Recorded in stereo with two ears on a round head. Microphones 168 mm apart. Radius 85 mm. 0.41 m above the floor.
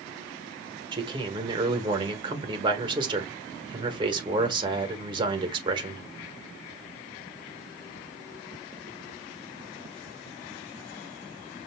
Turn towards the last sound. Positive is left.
turn(degrees=-25)  # may be behind; listen again after turning